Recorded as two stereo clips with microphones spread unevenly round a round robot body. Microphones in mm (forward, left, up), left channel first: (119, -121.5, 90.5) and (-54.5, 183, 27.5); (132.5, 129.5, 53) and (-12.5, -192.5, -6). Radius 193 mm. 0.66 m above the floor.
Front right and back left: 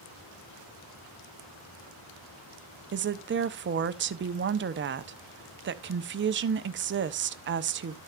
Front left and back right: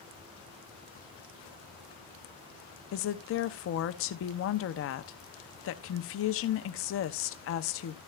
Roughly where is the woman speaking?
Behind left.